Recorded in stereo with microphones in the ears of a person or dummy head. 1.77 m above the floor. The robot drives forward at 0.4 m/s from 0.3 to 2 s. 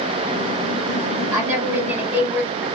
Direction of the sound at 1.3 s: 10° right (ahead or behind).